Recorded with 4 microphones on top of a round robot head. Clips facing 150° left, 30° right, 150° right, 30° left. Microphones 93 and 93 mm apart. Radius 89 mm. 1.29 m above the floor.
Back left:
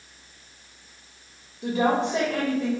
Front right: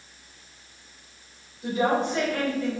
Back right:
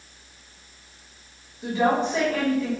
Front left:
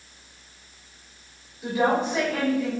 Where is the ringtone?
I don't hear a ringtone.